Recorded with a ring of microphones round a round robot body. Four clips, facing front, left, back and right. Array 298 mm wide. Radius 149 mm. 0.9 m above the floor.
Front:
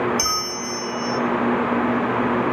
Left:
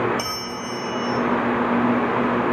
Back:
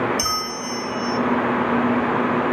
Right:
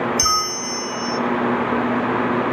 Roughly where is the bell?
Right.